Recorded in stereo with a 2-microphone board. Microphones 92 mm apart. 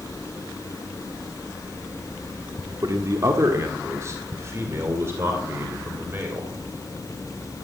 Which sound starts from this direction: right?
A man speaking, at 2.8 s.